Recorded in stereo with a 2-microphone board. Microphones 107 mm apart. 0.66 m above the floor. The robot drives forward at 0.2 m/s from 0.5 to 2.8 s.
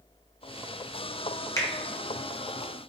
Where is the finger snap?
25° left (ahead or behind), 0.6 m; by 1.7 s 30° left (ahead or behind), 0.6 m.